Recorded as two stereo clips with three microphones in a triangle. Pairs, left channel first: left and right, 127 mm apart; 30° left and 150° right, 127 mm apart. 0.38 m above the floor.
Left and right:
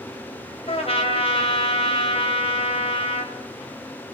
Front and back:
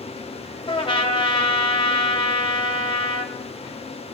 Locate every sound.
0.7 s a trumpet: 65° left, 2 m